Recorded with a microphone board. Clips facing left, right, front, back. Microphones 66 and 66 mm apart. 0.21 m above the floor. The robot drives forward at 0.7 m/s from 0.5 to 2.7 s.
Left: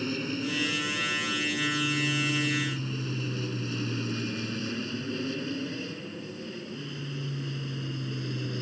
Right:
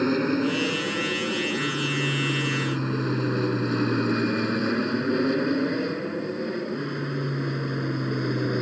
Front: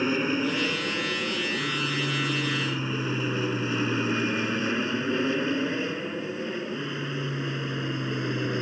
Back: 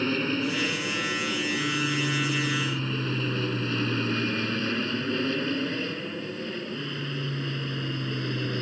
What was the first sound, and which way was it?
An aircraft, 75° right.